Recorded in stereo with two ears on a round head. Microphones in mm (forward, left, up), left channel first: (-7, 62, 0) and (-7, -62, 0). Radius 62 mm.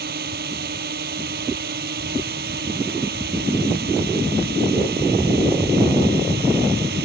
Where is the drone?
75° right (ahead or behind); by 7.0 s 80° right.